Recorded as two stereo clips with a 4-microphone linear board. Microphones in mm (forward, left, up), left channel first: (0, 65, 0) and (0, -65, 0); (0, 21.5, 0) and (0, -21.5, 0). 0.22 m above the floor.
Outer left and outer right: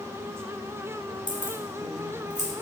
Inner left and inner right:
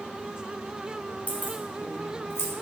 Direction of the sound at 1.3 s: 40° left (ahead or behind).